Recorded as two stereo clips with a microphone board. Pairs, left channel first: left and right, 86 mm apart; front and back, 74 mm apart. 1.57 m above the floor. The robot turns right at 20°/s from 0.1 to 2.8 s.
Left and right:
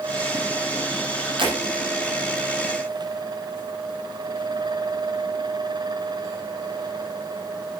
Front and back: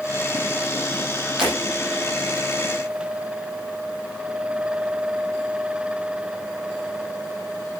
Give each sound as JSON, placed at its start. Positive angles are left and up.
{"t": 1.4, "sound": "breaking glass", "azimuth_deg": -100, "distance_m": 9.0}